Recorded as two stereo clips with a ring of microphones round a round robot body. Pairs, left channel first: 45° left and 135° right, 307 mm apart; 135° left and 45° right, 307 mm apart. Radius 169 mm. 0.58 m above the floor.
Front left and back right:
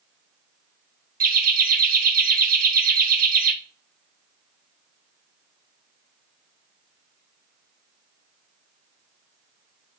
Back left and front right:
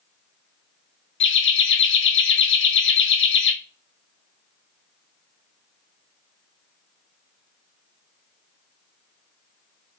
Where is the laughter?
170° left, 0.9 m.